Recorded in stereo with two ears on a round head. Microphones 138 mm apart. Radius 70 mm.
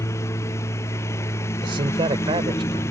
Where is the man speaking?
35° right (ahead or behind).